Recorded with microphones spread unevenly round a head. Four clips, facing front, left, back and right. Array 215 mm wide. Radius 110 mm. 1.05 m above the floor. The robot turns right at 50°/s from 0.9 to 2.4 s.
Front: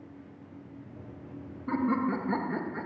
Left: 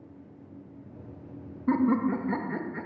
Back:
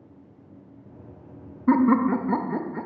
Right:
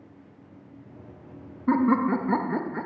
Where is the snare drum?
I don't hear a snare drum.